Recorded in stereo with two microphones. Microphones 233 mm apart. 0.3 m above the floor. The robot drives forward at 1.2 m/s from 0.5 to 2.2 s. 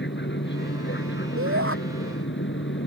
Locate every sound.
0.0 s an aircraft: 50° left (ahead or behind); by 2.9 s 55° left (ahead or behind)
1.4 s a shout: 65° right (ahead or behind)